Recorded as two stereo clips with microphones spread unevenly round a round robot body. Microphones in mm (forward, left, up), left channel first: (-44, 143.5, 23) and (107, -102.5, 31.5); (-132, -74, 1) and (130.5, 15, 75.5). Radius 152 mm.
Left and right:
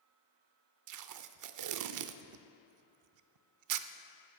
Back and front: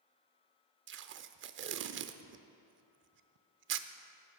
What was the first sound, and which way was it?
Tape being pulled, 35° right.